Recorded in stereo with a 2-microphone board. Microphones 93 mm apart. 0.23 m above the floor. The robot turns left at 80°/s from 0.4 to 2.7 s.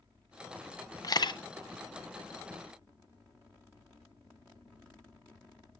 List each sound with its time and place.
1.0 s a camera shutter: 40° left (ahead or behind), 0.7 m; by 1.4 s 60° left (ahead or behind), 0.7 m